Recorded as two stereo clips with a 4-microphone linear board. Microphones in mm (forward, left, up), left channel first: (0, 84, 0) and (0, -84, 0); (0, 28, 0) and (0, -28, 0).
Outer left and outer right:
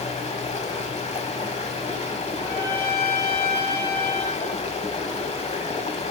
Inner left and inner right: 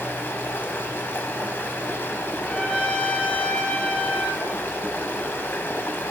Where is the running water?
40° left (ahead or behind), 0.9 m.